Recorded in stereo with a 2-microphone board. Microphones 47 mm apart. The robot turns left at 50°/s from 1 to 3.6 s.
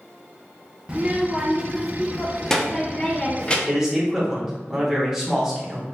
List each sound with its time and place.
0.9 s a child speaking: 15° right (ahead or behind), 0.5 m; by 3.6 s 25° left (ahead or behind), 0.5 m
3.7 s a man speaking: 10° right (ahead or behind), 0.9 m